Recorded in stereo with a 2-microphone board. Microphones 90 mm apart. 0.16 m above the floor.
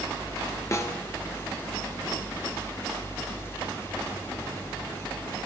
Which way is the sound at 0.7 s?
35° left (ahead or behind).